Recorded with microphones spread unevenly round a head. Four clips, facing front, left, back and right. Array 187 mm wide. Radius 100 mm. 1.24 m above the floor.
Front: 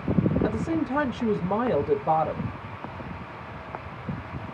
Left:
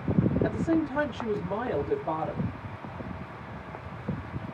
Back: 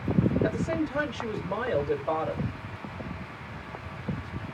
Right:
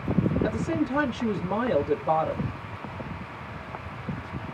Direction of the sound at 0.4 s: 10° right.